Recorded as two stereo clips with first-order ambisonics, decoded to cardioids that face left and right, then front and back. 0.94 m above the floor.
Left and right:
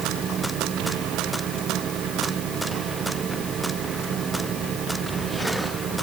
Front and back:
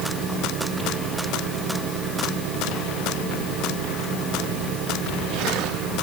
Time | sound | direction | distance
0.0 | an engine running | 150° right | ?